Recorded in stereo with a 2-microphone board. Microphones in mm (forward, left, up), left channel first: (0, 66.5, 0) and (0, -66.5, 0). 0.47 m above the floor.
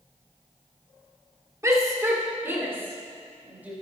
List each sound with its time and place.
1.6 s a shout: 25° right (ahead or behind), 1.5 m; by 3.7 s 15° right (ahead or behind), 3 m